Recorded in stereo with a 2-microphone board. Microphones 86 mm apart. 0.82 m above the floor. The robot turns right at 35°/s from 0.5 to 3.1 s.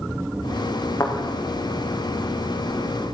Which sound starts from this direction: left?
A thud, at 1.0 s.